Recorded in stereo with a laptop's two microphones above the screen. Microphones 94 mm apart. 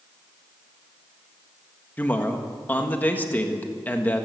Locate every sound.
2.0 s a man speaking: 20° left (ahead or behind), 1.5 m